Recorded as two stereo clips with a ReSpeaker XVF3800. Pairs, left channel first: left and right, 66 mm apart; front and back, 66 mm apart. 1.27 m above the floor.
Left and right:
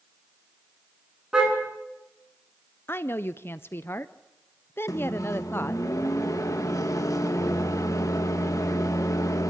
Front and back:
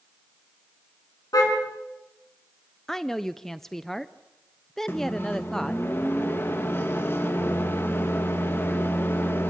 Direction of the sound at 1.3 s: 15° right.